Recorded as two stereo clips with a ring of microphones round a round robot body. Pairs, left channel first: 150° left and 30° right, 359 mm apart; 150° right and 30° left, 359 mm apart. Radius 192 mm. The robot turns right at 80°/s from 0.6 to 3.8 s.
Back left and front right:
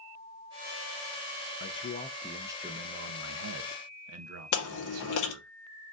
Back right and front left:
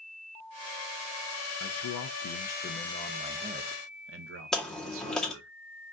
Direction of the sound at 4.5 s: 120° left.